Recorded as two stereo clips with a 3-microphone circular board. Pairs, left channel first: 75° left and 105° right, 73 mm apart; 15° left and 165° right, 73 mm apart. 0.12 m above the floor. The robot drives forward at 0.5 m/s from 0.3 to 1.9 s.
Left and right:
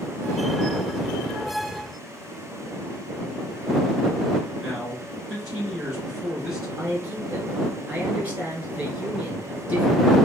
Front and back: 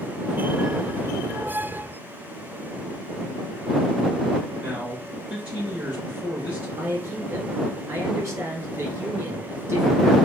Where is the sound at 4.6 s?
175° right, 1.5 m.